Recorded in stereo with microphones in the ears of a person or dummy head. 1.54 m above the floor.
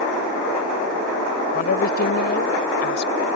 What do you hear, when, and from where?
1.5 s a woman speaking: 55° left (ahead or behind); by 3.1 s 65° left (ahead or behind)